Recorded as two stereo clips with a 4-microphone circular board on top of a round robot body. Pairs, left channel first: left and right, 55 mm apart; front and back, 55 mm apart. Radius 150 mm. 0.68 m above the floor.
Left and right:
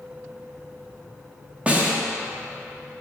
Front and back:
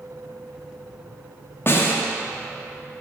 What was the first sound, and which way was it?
A snare drum, 30° right.